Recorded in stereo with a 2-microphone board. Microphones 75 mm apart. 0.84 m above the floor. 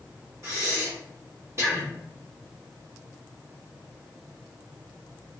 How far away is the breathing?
About 1.4 m.